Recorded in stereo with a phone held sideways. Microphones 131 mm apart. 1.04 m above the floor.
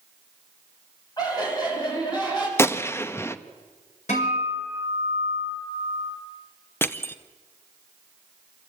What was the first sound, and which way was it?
Laughter, 30° left (ahead or behind).